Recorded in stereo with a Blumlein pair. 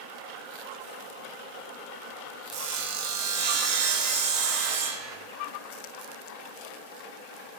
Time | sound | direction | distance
2.5 | sawing | 40° right | 1.5 m